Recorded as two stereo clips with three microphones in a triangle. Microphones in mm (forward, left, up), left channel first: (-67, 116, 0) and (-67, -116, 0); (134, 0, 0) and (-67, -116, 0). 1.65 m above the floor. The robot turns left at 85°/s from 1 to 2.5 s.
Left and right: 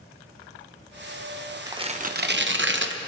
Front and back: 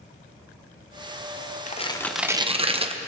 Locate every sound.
1.7 s tearing paper: 20° right, 0.9 m; by 3.0 s 90° right, 0.9 m